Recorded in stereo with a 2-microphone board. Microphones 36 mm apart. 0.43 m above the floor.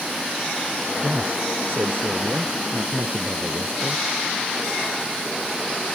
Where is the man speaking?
80° right.